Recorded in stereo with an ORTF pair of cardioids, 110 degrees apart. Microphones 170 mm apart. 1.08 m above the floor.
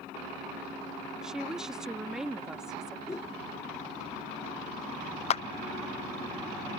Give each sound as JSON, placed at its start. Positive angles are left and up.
{"t": 1.2, "sound": "a woman speaking", "azimuth_deg": -5}
{"t": 3.1, "sound": "a whoosh", "azimuth_deg": 15}
{"t": 5.3, "sound": "a clap", "azimuth_deg": 35}